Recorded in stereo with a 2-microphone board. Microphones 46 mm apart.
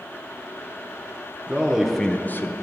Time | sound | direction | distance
1.5 | a man speaking | 20° right (ahead or behind) | 1.0 m